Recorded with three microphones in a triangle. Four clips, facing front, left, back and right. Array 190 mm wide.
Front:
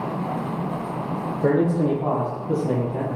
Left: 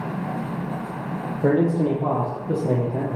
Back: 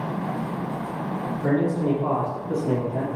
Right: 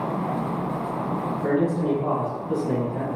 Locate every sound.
1.4 s a man speaking: 50° left, 3.5 m; by 3.2 s 75° left, 3 m